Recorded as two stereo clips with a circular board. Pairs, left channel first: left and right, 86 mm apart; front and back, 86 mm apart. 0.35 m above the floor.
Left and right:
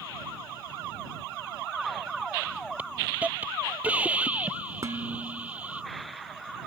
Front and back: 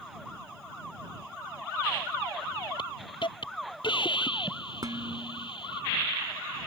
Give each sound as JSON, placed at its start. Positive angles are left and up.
{"t": 2.8, "sound": "a hiss", "azimuth_deg": -15}
{"t": 4.8, "sound": "dishes clattering", "azimuth_deg": -140}